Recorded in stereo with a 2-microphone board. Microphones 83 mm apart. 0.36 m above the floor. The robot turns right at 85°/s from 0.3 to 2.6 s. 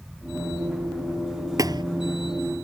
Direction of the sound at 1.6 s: 45° right (ahead or behind).